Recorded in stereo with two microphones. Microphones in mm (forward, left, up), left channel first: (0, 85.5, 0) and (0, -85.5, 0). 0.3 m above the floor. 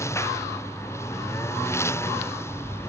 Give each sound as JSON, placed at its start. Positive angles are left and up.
{"t": 0.0, "sound": "a lawn mower", "side_deg": 15}